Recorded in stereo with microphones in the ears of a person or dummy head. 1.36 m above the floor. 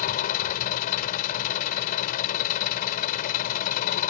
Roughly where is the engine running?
Left.